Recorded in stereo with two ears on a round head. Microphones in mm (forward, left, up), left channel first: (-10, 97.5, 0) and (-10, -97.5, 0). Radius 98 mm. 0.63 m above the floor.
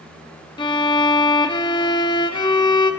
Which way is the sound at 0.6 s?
20° left (ahead or behind).